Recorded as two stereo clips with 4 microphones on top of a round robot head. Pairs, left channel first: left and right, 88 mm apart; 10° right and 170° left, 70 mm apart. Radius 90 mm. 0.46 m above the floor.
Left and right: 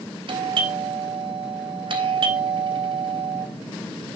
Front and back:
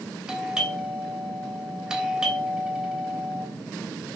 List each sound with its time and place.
0.3 s a doorbell: 110° right, 3 m